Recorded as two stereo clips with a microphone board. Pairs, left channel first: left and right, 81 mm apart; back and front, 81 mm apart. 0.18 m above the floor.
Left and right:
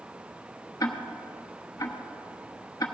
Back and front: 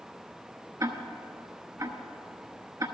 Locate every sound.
0.8 s ticking: 45° left, 1.1 m